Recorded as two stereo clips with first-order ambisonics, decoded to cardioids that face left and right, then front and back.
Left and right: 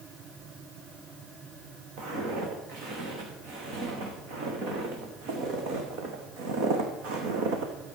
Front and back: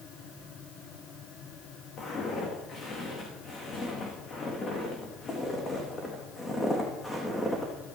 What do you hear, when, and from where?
2.0 s footsteps: 55° right, 5 m; by 7.7 s 85° right, 2.5 m